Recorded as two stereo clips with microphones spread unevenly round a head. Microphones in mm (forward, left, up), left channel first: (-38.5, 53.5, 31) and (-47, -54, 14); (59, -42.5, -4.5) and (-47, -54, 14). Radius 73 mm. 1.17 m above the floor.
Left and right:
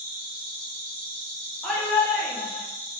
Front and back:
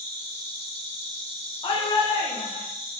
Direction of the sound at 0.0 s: 140° right.